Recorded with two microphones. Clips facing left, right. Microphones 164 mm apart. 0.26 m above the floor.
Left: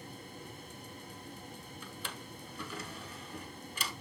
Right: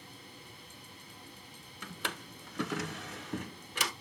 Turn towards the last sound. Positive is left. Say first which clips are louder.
# right 6 dB
turn(degrees=-75)  # may be behind; listen again after turning